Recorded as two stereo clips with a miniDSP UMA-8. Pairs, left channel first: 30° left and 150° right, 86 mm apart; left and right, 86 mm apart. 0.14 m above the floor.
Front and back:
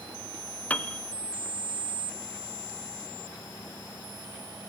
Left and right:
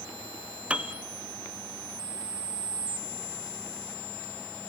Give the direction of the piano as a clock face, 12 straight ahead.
1 o'clock.